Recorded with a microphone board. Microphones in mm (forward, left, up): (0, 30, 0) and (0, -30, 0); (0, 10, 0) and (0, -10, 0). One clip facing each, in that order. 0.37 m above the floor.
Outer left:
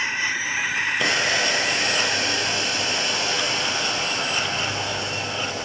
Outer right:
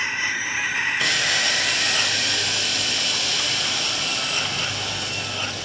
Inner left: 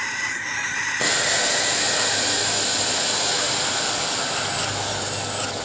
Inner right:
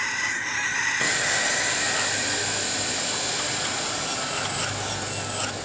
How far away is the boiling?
About 3 m.